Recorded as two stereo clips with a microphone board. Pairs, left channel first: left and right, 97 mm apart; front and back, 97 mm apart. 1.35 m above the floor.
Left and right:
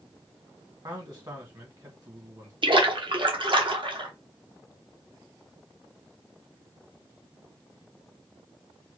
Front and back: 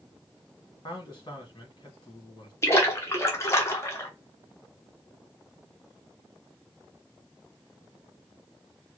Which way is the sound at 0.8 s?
40° right.